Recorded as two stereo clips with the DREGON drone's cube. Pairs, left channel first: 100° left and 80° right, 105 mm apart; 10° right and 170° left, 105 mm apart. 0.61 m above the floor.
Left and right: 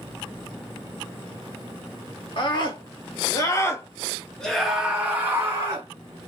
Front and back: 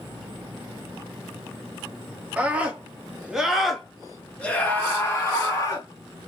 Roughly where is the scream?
Left.